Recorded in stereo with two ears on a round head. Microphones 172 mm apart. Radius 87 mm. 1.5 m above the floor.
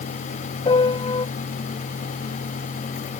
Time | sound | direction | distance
0.7 | a piano | 25° left (ahead or behind) | ?